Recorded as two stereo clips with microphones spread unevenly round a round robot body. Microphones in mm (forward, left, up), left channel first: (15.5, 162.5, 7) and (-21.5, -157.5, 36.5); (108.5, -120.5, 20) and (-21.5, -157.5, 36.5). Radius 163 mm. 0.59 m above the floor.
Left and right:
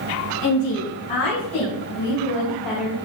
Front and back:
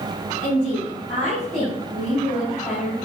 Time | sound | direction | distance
0.4 | a woman speaking | 105° left | 5 m